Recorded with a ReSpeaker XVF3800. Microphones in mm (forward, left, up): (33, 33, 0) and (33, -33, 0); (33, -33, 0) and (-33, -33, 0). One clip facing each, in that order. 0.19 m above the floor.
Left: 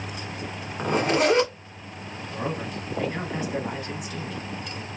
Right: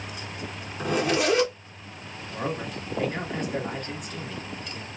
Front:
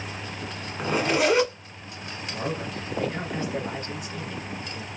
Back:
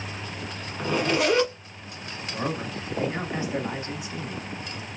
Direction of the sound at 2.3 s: 160° left.